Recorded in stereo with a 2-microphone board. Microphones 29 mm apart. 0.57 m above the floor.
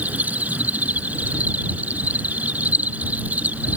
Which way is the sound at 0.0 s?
65° right (ahead or behind).